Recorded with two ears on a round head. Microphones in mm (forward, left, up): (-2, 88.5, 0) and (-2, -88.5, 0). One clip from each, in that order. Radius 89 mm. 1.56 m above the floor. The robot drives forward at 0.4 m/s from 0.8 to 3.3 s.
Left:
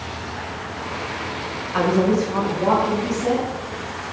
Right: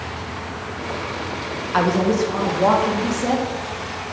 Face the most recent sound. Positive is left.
turn(degrees=-25)  # may be behind; listen again after turning